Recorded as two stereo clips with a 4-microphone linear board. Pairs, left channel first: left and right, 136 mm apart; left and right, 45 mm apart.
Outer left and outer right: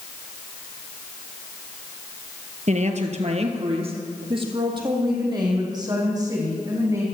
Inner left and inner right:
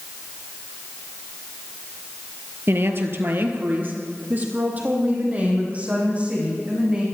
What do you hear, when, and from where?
2.7 s a woman speaking: 60° right (ahead or behind), 2 m; by 7.0 s 25° right (ahead or behind), 7 m